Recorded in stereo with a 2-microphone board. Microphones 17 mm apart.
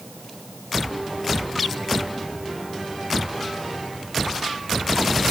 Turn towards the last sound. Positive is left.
No sound to turn to.